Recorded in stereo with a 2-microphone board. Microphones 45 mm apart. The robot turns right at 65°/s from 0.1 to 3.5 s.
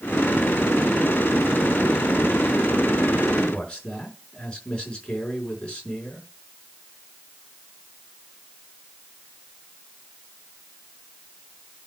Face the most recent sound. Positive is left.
turn(degrees=20)  # may be behind; listen again after turning